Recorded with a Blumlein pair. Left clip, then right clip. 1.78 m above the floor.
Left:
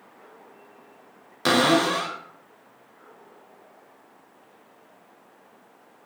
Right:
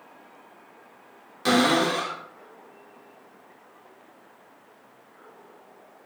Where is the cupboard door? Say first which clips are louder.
Left 1 dB; 20° left, 0.5 m.